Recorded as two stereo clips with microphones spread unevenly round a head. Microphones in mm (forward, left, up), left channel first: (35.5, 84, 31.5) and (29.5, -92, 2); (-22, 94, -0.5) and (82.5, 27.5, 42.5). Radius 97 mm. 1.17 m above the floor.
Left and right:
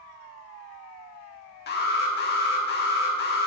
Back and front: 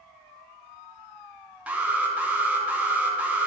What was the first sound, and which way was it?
An alarm, 50° left.